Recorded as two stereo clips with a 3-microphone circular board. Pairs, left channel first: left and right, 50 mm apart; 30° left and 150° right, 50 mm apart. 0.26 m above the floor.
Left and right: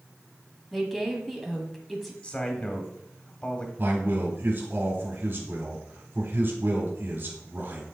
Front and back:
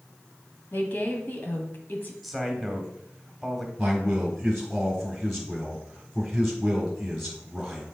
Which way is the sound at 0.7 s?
5° left.